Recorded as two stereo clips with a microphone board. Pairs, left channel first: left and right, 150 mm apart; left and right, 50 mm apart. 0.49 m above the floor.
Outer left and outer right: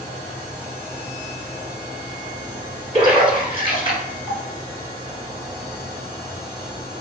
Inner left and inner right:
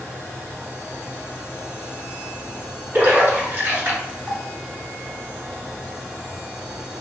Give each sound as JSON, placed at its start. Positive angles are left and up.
{"t": 2.9, "sound": "a splash", "side_deg": -35, "distance_m": 1.3}